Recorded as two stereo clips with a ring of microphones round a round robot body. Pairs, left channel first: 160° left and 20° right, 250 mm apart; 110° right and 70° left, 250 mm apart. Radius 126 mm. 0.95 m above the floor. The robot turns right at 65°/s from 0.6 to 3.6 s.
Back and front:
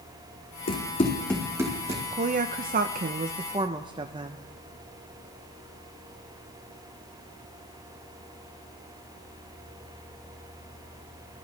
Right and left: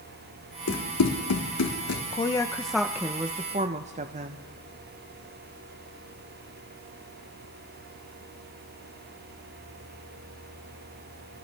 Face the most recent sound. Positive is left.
turn(degrees=35)